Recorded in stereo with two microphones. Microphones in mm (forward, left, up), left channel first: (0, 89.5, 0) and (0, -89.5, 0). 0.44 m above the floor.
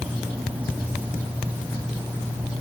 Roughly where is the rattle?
I don't hear a rattle.